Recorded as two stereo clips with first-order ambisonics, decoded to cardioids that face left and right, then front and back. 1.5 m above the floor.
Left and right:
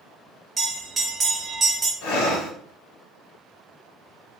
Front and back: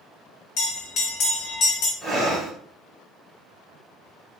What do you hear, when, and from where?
0.6 s a bell: 15° right, 1.1 m
2.0 s breathing: 90° left, 1.4 m